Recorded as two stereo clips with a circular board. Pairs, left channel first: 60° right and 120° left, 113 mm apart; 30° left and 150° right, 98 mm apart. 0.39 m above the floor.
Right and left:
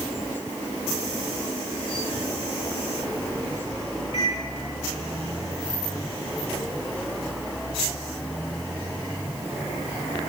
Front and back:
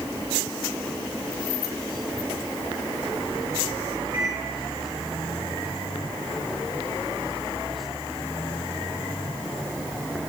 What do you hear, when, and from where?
4.1 s a microwave: 95° right, 6 m